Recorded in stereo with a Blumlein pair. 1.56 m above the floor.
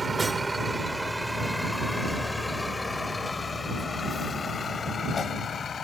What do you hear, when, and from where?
0.0 s a vehicle: 10° right; by 5.8 s 20° left